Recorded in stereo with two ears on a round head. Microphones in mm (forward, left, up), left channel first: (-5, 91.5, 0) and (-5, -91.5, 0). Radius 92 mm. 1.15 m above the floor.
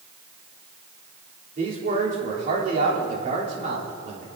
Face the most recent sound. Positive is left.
turn(degrees=-40)  # may be behind; listen again after turning